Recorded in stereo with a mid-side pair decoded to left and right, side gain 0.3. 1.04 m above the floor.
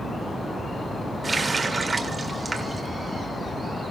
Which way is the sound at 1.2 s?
45° right.